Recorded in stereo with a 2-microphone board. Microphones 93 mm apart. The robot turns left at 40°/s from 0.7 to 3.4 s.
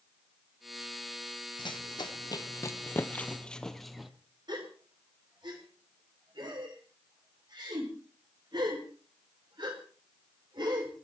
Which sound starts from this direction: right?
A gasp, at 4.5 s.